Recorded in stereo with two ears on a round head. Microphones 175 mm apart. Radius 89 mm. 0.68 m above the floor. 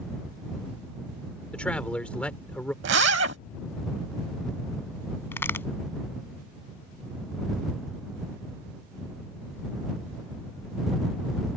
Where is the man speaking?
5° left (ahead or behind).